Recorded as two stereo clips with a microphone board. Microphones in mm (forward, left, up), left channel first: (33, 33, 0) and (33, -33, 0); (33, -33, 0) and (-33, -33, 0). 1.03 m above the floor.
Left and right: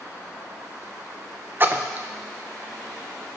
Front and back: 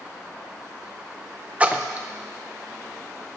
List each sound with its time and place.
1.6 s a splash: 125° right, 0.6 m